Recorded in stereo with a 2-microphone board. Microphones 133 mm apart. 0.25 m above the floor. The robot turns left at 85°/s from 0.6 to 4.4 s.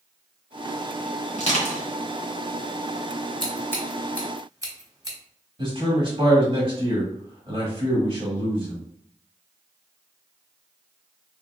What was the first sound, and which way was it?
Crushing, 50° left (ahead or behind).